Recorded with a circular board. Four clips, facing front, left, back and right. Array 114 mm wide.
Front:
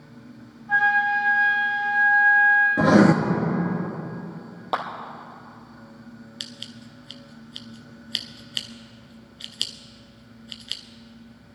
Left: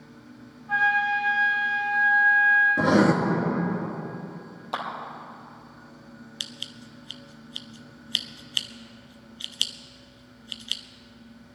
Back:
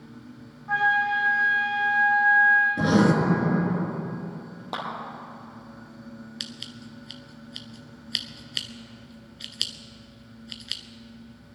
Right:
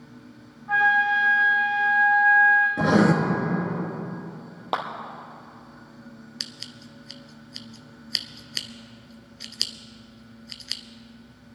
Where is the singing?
I don't hear singing.